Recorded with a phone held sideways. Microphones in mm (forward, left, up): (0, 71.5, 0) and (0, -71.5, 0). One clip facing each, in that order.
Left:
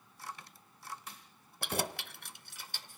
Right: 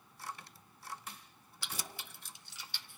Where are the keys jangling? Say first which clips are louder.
Left 10 dB; 55° left (ahead or behind), 0.6 m; by 3.0 s 40° left (ahead or behind), 1.0 m.